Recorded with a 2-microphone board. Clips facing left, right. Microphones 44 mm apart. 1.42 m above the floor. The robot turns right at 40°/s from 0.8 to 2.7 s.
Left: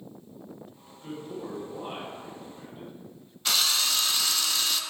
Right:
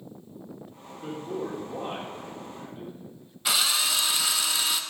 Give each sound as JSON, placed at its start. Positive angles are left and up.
{"t": 0.8, "sound": "a man speaking", "azimuth_deg": -75, "distance_m": 2.0}
{"t": 3.5, "sound": "a drill", "side_deg": -10, "distance_m": 0.6}